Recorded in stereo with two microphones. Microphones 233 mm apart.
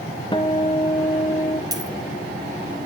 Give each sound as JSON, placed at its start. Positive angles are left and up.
{"t": 0.3, "sound": "a guitar", "side_deg": 20, "distance_m": 0.6}
{"t": 1.7, "sound": "a dropped coin", "side_deg": -15, "distance_m": 1.6}